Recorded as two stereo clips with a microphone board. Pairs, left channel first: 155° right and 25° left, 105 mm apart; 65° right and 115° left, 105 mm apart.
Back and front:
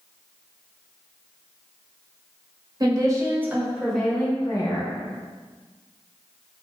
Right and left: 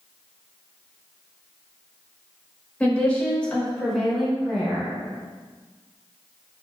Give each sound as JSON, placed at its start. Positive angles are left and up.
{"t": 2.8, "sound": "a woman speaking", "azimuth_deg": 5, "distance_m": 1.3}